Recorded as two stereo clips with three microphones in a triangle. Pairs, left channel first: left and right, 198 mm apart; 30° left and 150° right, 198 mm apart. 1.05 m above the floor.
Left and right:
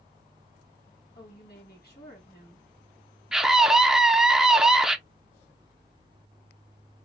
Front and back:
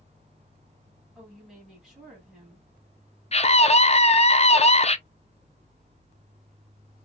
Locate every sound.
1.1 s a woman speaking: 120° left, 2.0 m
3.3 s a scream: 5° right, 0.5 m